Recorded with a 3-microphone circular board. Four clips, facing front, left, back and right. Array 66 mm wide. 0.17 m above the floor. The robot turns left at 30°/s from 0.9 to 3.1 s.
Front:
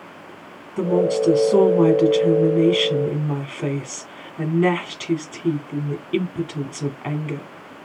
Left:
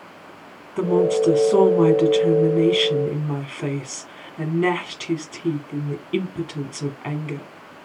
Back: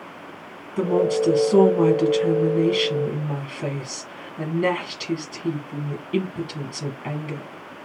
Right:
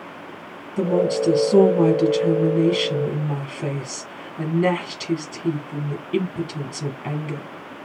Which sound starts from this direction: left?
A woman speaking, at 0.8 s.